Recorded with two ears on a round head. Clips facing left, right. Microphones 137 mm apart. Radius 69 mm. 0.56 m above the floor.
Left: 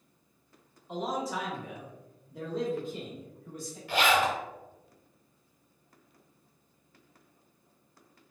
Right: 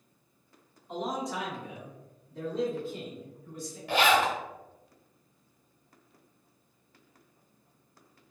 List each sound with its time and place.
0.9 s a man speaking: centre (ahead or behind), 1.2 m; by 3.8 s 15° left (ahead or behind), 1.4 m
3.9 s a zipper: 50° right (ahead or behind), 0.8 m